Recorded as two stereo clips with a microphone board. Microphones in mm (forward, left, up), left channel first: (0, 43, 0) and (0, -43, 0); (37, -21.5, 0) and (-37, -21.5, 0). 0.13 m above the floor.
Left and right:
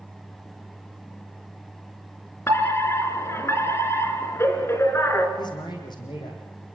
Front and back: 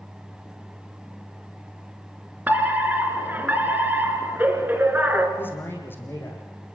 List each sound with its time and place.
2.5 s a fire alarm: 130° left, 3 m
5.4 s a man speaking: 60° left, 6 m